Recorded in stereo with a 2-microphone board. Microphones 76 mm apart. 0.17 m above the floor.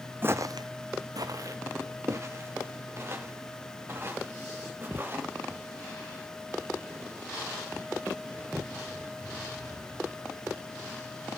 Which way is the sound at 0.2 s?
30° right (ahead or behind).